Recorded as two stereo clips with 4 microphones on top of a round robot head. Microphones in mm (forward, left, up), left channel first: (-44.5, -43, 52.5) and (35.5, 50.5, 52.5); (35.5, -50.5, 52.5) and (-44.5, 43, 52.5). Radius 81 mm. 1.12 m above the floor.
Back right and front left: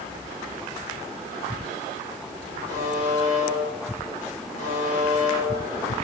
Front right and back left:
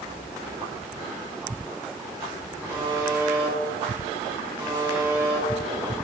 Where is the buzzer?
160° right, 2 m.